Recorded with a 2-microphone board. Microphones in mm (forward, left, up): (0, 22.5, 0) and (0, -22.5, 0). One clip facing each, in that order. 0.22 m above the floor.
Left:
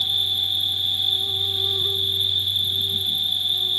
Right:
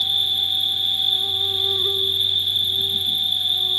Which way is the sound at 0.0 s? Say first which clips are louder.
Right 2 dB; 20° right (ahead or behind).